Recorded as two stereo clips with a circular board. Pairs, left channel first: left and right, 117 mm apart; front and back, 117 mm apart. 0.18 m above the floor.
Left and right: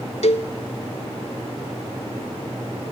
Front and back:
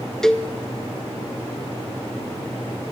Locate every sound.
0.2 s a cowbell: 85° left, 0.9 m